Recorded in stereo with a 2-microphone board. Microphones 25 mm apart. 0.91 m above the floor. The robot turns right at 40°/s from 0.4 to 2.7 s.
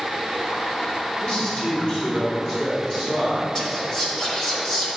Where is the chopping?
I don't hear chopping.